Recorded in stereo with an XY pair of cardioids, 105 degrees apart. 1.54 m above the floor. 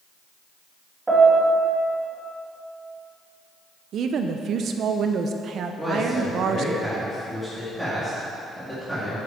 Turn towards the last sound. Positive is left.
turn(degrees=0)